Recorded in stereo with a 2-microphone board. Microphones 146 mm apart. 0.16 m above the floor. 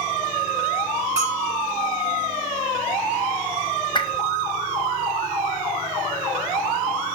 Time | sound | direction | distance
1.2 | a bell | 20° right (ahead or behind) | 3.5 m
4.0 | a whoosh | 30° left (ahead or behind) | 1.1 m